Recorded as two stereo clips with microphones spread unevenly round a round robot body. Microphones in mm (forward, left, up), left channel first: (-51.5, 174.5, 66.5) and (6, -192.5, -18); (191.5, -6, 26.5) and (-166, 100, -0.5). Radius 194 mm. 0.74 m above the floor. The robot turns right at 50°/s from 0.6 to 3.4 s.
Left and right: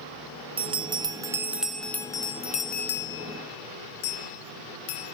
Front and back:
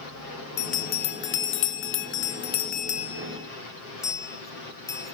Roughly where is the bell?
Right.